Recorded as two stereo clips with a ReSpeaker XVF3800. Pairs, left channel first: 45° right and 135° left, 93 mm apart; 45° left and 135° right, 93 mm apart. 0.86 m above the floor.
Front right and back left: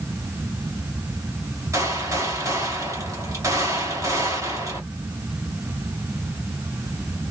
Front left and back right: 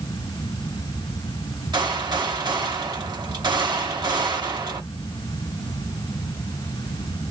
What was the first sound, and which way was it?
A gunshot, 170° right.